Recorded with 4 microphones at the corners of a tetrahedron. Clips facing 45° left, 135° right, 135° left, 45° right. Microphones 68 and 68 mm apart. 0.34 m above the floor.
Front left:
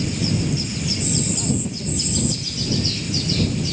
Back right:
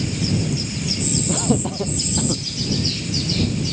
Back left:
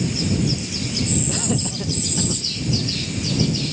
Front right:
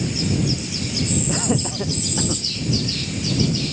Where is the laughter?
120° right; by 2.4 s 110° right.